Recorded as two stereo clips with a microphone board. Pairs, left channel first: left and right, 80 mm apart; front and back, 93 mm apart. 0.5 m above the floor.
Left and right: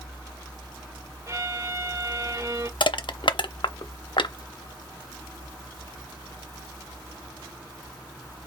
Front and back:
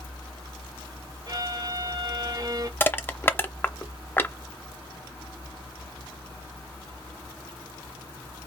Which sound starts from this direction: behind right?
A violin, at 1.3 s.